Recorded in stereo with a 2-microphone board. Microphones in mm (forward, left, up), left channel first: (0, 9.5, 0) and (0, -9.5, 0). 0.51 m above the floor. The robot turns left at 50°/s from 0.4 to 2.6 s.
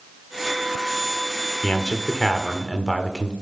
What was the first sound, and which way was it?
A man speaking, 70° left.